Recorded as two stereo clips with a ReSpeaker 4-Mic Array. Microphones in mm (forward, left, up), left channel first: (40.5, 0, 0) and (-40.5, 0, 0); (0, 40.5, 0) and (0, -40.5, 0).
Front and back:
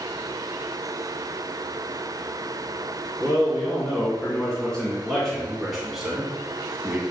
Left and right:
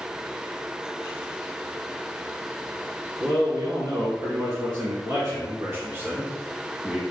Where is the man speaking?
70° right, 3 m; by 7.0 s 150° right, 1.7 m.